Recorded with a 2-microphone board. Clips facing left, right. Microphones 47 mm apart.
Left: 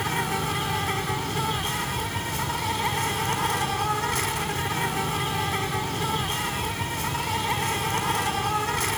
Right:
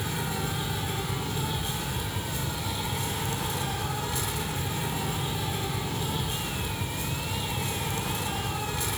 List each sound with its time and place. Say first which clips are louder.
0.0 s an insect: left 5 dB; 70° left (ahead or behind), 1.1 m